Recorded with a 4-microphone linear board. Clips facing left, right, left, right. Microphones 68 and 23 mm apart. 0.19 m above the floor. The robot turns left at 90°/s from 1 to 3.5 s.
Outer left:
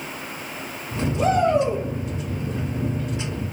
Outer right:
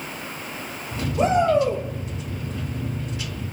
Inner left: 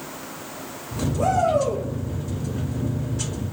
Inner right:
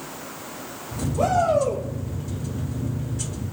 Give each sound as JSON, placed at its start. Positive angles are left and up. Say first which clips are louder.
{"t": 1.2, "sound": "a shout", "louder": "outer right 1 dB, even", "azimuth_deg": -140, "distance_m": 7.0}